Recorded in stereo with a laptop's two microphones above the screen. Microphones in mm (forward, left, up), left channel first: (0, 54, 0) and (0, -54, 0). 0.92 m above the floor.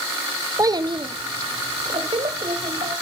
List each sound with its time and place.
0.6 s a child speaking: 30° right (ahead or behind), 0.5 m; by 2.9 s 65° right (ahead or behind), 3.5 m